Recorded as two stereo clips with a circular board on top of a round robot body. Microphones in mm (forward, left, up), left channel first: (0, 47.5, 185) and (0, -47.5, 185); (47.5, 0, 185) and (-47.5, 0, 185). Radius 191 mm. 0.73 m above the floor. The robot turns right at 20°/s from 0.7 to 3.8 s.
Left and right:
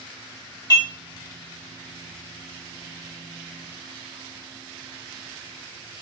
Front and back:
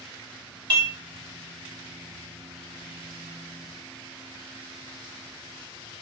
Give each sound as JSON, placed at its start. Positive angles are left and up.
{"t": 0.7, "sound": "dishes clattering", "azimuth_deg": 140, "distance_m": 1.6}